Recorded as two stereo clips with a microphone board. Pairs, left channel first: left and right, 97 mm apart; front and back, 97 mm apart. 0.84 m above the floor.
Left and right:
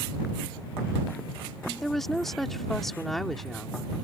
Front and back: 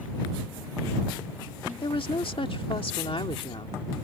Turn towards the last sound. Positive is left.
turn(degrees=5)